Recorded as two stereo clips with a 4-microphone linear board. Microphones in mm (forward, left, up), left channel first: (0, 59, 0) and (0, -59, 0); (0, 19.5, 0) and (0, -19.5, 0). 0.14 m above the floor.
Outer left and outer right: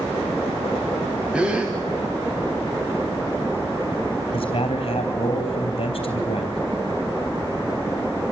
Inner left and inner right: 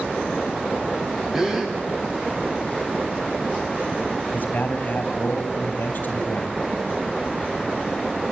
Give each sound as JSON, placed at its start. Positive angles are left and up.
{"t": 1.3, "sound": "a gasp", "side_deg": -10, "distance_m": 3.5}
{"t": 4.3, "sound": "a man speaking", "side_deg": 45, "distance_m": 4.0}